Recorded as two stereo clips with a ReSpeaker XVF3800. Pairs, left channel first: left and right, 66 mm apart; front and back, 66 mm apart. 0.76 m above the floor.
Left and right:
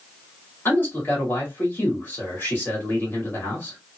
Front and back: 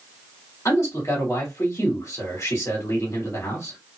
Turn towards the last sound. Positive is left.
turn(degrees=35)